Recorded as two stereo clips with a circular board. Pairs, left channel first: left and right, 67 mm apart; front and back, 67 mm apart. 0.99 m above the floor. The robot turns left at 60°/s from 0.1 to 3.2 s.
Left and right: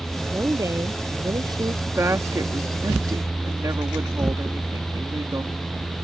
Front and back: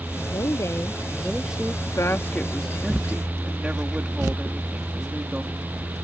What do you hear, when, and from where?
0.2 s a woman speaking: 20° right; by 1.8 s 115° right
1.9 s a woman speaking: 35° right; by 5.5 s 115° right